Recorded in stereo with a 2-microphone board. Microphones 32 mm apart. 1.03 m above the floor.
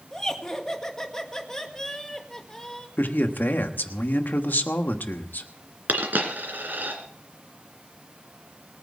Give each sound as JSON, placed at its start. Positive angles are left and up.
{"t": 0.1, "sound": "laughter", "side_deg": 15, "distance_m": 1.7}
{"t": 3.0, "sound": "a man speaking", "side_deg": 75, "distance_m": 1.3}
{"t": 5.9, "sound": "a dropped coin", "side_deg": -70, "distance_m": 2.5}